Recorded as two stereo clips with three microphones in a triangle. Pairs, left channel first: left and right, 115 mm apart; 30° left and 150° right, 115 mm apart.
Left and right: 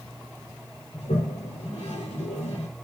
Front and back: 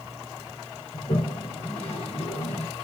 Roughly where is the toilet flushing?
Ahead left.